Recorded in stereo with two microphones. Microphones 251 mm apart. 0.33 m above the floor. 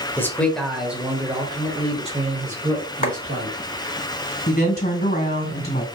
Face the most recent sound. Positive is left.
turn(degrees=40)  # may be behind; listen again after turning